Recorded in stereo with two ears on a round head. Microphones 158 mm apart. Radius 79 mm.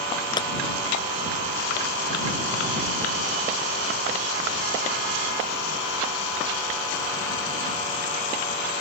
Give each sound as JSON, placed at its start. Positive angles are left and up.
{"t": 0.4, "sound": "a clap", "side_deg": 25}